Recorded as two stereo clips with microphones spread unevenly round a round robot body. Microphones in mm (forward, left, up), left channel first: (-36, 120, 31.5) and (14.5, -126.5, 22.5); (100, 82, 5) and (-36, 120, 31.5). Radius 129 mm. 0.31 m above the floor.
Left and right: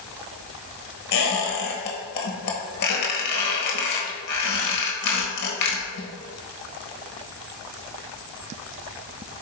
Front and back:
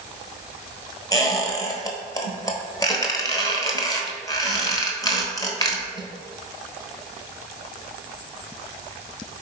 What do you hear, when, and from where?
1.1 s a squeak: 50° left, 1.2 m